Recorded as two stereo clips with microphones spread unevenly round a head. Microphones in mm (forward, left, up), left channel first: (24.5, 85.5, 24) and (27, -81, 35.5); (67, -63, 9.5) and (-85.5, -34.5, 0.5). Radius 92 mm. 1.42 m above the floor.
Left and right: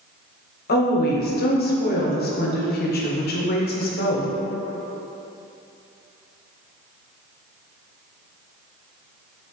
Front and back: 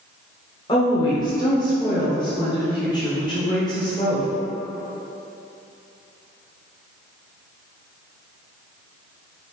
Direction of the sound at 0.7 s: 60° left.